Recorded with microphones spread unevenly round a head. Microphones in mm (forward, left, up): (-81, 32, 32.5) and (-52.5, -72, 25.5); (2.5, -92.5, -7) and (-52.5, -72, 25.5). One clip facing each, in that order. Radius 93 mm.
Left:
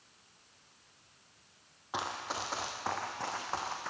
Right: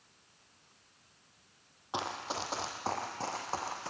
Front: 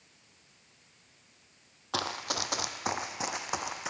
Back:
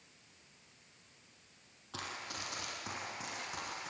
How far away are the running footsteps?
About 1.3 m.